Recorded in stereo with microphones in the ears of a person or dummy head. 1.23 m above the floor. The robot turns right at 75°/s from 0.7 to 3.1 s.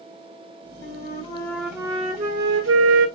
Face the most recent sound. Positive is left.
turn(degrees=-70)